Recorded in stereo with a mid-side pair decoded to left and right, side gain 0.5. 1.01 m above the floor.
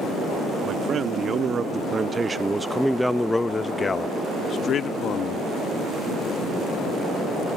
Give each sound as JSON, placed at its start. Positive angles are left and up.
{"t": 0.7, "sound": "a man speaking", "azimuth_deg": -50}